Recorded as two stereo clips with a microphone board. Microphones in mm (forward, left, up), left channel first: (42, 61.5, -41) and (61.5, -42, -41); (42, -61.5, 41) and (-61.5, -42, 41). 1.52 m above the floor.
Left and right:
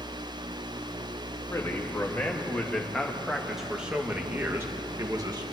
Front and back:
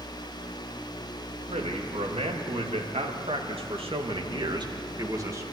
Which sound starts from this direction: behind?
A man speaking, at 1.5 s.